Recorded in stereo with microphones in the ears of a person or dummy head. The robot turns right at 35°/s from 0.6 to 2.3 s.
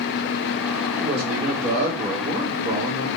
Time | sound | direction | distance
1.0 | a man speaking | 75° right | 1.9 m